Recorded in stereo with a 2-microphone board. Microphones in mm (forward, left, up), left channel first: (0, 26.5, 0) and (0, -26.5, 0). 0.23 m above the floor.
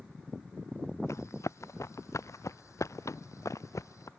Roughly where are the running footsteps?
Left.